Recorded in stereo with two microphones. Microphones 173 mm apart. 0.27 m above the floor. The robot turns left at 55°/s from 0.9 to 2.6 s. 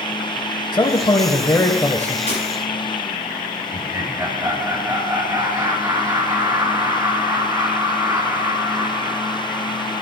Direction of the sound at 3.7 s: 25° right (ahead or behind).